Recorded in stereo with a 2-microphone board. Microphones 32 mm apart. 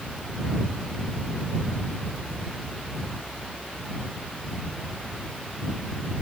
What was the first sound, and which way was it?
Only background noise.